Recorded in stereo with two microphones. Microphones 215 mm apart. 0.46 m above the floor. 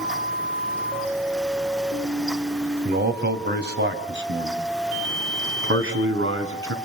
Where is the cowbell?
No cowbell in this recording.